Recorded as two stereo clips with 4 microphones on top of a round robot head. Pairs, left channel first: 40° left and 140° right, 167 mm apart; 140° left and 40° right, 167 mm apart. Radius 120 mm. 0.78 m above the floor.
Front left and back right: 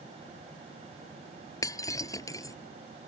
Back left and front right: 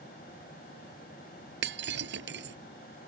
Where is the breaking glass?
30° right.